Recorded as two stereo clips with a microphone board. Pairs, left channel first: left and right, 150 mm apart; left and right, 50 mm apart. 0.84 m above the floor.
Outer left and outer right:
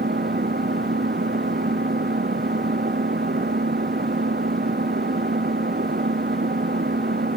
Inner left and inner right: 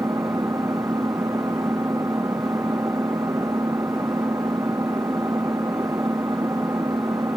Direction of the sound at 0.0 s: 90° right.